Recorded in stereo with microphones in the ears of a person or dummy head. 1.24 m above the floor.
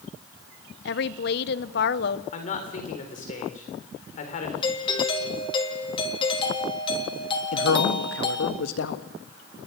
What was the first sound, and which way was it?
A woman speaking, 55° left (ahead or behind).